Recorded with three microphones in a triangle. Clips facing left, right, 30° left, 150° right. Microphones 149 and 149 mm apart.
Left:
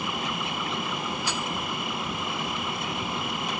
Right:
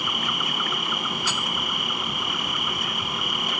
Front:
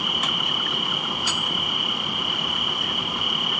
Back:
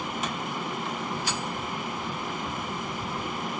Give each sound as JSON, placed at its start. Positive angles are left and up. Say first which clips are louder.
{"t": 0.0, "sound": "an insect", "louder": "even, front 1 dB", "azimuth_deg": 30}